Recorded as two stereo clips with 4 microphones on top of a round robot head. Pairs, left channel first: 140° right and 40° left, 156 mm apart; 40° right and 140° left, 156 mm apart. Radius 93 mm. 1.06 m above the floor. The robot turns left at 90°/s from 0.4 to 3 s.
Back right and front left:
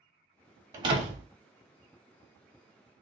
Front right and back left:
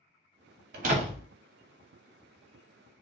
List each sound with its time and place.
0.7 s a door slam: 110° left, 1.1 m; by 1.2 s 65° left, 1.1 m